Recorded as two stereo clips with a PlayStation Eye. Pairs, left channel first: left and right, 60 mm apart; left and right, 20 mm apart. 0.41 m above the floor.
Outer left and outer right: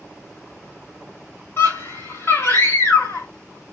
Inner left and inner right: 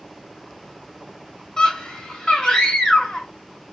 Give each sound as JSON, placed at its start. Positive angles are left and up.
{"t": 1.6, "sound": "a scream", "side_deg": 45, "distance_m": 2.0}